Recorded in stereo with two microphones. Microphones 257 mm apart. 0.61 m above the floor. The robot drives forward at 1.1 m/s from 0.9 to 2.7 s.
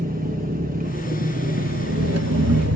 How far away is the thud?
No thud in this recording.